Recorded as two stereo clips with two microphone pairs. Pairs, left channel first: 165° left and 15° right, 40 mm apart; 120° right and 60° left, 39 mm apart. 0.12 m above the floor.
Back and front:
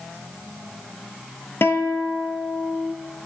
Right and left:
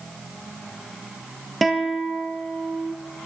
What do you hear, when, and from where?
1.6 s a guitar: 150° left, 1.0 m